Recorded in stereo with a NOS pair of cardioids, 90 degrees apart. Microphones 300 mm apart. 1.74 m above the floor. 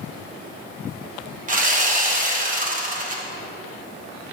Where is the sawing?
25° right, 0.9 m.